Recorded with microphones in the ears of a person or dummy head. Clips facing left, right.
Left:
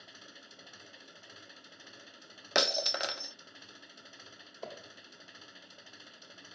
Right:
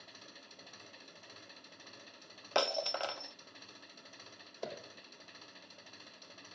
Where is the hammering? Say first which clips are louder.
Right 2 dB; 20° right (ahead or behind).